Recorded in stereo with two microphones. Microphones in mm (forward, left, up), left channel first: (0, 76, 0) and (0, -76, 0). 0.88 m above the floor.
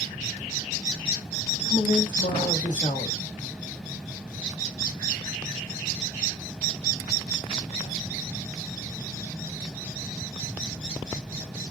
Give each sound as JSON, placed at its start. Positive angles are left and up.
{"t": 1.6, "sound": "a man speaking", "side_deg": 55, "distance_m": 1.5}